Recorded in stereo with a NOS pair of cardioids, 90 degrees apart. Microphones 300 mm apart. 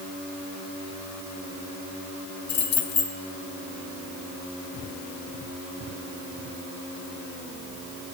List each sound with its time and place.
2.5 s keys jangling: 70° left, 2 m